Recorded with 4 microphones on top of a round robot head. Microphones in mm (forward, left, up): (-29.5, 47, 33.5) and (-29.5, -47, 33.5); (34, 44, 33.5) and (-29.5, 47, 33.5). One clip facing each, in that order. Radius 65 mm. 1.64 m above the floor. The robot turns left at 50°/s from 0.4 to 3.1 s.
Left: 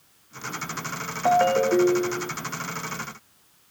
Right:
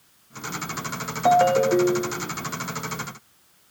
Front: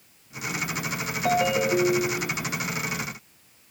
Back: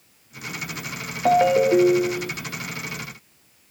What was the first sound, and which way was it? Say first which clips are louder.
A ringtone: right 2 dB, back 6 dB; 150° right.